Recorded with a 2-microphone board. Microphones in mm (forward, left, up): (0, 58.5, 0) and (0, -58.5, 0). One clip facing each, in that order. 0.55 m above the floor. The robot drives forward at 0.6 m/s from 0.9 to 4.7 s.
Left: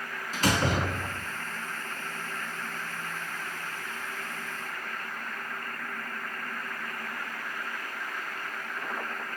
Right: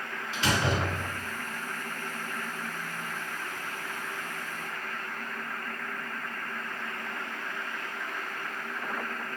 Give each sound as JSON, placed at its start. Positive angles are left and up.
{"t": 0.3, "sound": "a door slam", "side_deg": 40, "distance_m": 4.5}